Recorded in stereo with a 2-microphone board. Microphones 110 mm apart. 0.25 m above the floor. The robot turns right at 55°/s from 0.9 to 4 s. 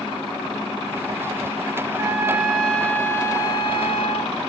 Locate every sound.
1.9 s a trumpet: 45° right, 1.1 m; by 4.4 s 70° left, 1.1 m